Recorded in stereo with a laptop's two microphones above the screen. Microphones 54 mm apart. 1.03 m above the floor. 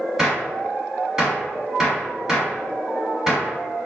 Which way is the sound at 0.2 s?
5° right (ahead or behind).